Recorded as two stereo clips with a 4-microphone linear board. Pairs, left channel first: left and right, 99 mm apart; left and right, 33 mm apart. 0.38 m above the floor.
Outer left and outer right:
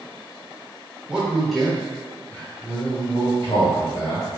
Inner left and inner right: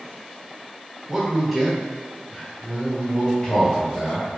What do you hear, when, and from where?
1.1 s a man speaking: 10° right (ahead or behind), 1.2 m; by 4.3 s 50° left (ahead or behind), 1.8 m